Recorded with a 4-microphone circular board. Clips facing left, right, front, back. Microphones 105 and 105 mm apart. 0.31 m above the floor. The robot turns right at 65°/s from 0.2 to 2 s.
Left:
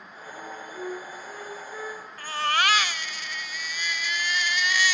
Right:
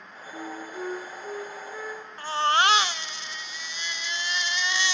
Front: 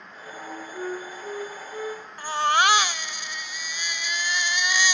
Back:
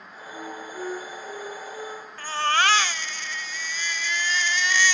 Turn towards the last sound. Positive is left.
turn(degrees=-60)